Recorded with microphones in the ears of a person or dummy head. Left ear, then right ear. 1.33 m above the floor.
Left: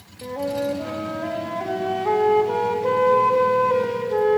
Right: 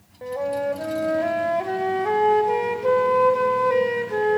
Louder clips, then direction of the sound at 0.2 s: Even; 40° right (ahead or behind).